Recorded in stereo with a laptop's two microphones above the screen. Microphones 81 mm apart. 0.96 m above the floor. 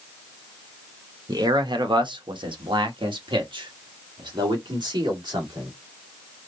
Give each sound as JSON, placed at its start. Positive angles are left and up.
{"t": 1.3, "sound": "a man speaking", "side_deg": -50, "distance_m": 1.1}